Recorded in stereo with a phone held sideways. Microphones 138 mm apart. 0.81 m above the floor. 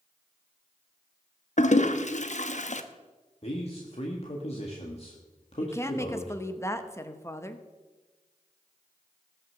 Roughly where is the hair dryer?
I don't hear a hair dryer.